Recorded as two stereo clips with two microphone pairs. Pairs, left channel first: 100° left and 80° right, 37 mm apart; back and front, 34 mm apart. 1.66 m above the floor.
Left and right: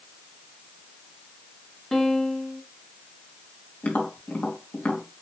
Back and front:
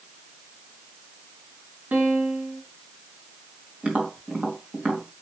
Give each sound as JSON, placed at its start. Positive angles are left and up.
{"t": 1.9, "sound": "a piano", "azimuth_deg": 30, "distance_m": 1.3}
{"t": 3.8, "sound": "tapping", "azimuth_deg": 65, "distance_m": 2.5}